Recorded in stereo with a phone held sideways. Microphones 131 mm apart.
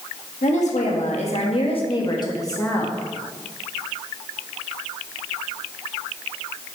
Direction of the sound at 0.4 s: 65° left (ahead or behind).